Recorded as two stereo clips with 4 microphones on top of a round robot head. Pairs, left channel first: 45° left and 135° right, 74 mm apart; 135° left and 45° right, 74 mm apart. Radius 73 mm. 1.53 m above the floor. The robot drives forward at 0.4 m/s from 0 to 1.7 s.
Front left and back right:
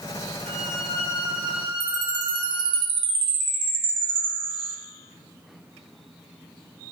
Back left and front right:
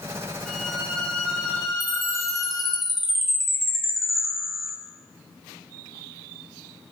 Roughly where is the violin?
Behind right.